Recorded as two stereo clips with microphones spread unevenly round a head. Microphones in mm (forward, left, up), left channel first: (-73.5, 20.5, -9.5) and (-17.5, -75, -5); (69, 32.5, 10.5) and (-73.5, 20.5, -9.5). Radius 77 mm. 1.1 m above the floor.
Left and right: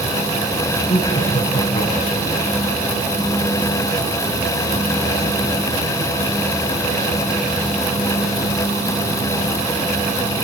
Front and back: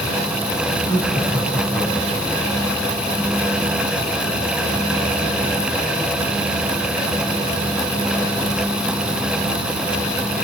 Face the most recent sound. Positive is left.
turn(degrees=65)